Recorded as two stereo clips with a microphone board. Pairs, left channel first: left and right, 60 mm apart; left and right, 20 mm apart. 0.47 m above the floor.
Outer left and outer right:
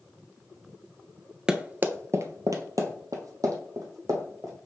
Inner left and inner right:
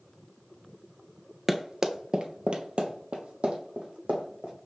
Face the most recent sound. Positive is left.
turn(degrees=-70)  # may be behind; listen again after turning